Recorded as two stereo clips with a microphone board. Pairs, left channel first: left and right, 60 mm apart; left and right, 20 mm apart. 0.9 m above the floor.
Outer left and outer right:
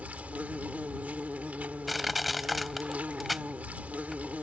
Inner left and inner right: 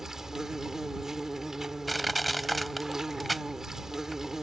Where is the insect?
25° right (ahead or behind).